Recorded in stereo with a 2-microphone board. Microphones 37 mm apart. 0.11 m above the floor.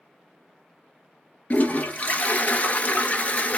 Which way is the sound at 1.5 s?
40° left (ahead or behind).